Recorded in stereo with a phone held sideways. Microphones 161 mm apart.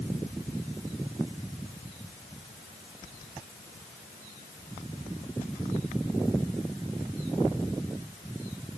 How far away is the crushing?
I don't hear crushing.